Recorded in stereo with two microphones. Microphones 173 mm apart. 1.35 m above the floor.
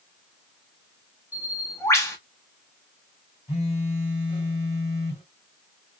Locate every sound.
1.3 s a bird: 15° left (ahead or behind), 0.9 m
3.5 s a phone buzzing: 35° left (ahead or behind), 2.5 m